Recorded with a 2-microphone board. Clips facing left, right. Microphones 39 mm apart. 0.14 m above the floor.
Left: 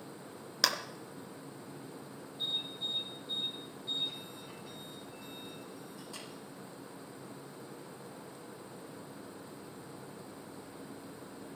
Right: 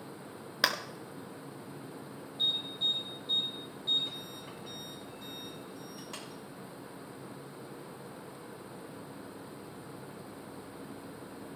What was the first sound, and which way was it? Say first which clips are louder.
A clap: right 2 dB; 20° right (ahead or behind).